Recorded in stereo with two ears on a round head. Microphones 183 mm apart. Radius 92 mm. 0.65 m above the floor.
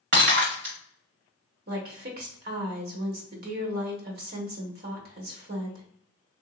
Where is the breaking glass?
60° right (ahead or behind), 1.9 m.